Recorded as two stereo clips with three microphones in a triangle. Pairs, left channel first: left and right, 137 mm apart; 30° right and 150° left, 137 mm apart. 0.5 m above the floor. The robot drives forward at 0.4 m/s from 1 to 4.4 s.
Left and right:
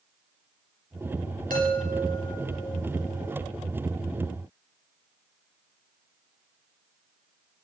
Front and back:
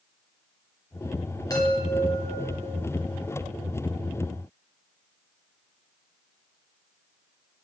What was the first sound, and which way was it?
A chime, 95° right.